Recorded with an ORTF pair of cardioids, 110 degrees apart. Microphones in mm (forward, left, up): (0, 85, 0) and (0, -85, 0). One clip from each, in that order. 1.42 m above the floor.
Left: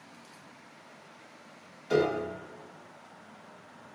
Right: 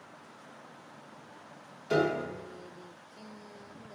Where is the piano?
5° right, 0.5 m.